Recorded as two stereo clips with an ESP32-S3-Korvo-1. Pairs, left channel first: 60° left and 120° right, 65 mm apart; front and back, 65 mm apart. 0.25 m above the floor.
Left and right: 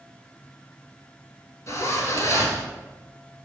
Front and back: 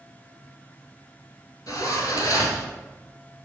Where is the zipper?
20° left, 1.4 m.